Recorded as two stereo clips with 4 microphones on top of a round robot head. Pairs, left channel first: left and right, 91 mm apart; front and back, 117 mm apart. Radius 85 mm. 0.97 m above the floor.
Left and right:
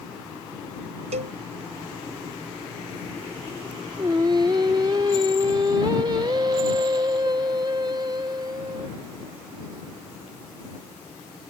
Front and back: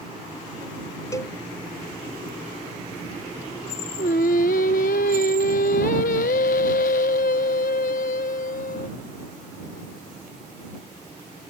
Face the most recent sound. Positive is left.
turn(degrees=-25)